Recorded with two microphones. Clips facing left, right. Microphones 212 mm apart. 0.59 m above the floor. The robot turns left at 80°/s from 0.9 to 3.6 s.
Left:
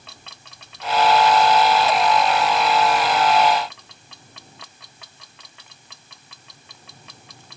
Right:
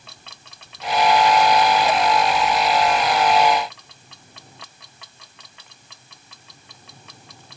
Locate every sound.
Only background noise.